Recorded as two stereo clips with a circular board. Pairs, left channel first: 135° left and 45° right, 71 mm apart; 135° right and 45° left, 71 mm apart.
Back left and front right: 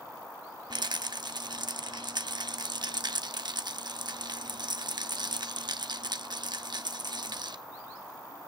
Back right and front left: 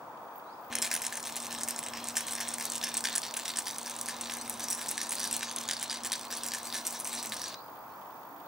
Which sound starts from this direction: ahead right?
A rattle, at 0.7 s.